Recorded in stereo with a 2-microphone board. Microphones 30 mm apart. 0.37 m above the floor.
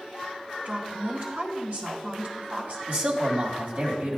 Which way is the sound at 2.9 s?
60° right (ahead or behind).